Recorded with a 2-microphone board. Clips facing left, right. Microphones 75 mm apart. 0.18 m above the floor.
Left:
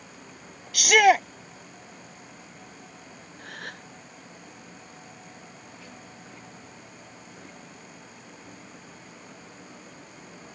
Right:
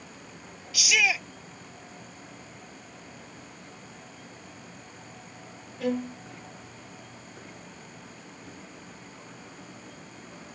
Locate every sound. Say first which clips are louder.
0.7 s a shout: left 10 dB; 55° left (ahead or behind)
3.4 s a gasp: left 6 dB; 80° left
5.8 s a violin: right 17 dB; 80° right